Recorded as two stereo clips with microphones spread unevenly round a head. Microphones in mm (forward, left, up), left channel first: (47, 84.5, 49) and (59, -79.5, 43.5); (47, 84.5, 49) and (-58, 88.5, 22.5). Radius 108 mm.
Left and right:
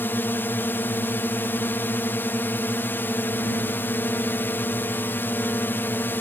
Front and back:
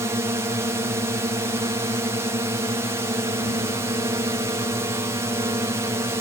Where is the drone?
165° left.